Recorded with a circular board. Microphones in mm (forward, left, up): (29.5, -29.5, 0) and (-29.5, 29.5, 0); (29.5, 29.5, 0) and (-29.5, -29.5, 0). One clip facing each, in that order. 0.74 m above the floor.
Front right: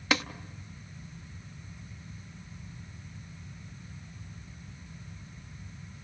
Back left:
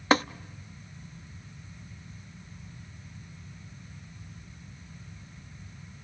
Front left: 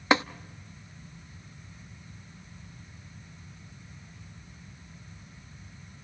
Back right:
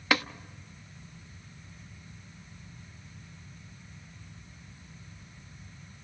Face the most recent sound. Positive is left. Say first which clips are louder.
# back left 6 dB, front left 4 dB
turn(degrees=100)